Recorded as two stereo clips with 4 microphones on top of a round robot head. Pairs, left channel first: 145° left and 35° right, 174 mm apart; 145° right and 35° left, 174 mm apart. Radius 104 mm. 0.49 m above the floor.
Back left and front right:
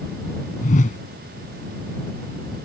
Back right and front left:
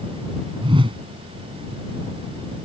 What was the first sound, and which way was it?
A whoosh, 100° left.